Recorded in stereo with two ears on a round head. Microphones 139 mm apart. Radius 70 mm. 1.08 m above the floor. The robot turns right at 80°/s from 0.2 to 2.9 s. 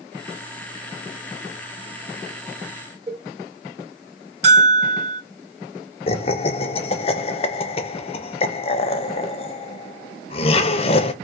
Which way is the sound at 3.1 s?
30° right (ahead or behind).